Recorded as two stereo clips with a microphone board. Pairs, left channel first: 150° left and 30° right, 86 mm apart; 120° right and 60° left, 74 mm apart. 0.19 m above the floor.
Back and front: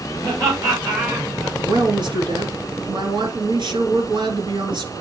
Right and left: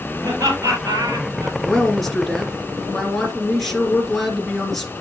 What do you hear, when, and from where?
0.2 s laughter: 15° left, 4 m; by 1.6 s 20° left, 4.5 m
1.6 s a woman speaking: 30° right, 3 m